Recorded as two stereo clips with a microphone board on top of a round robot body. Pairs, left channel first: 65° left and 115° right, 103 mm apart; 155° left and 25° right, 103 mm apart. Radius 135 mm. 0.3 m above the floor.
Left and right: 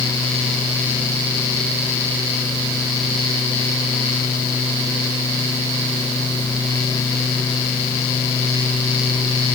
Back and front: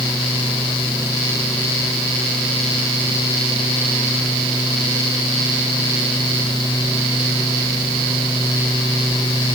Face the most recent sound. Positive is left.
No sound to turn to.